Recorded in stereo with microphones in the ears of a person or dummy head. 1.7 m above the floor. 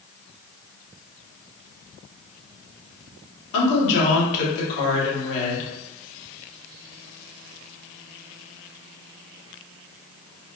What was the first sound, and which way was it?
A woman speaking, 65° left (ahead or behind).